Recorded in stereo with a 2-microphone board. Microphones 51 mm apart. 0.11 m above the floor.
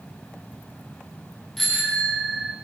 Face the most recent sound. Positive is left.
turn(degrees=5)  # may be behind; listen again after turning